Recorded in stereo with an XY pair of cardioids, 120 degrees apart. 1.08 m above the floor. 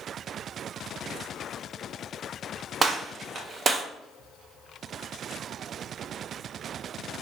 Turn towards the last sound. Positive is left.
turn(degrees=-30)